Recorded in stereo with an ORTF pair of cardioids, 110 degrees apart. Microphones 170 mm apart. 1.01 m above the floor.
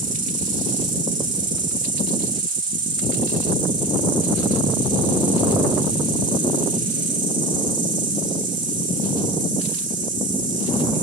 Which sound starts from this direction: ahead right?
An insect, at 0.0 s.